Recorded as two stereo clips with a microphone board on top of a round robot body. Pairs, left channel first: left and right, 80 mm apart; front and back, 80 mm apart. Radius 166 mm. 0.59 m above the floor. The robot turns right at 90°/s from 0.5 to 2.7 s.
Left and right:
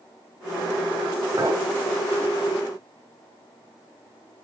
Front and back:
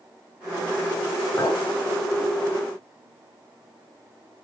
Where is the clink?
55° right, 3.5 m; by 1.6 s 30° right, 3.5 m.